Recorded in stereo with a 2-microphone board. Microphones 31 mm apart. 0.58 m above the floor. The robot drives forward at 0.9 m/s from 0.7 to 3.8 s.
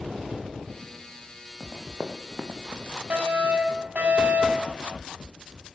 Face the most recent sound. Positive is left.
turn(degrees=-50)  # may be behind; listen again after turning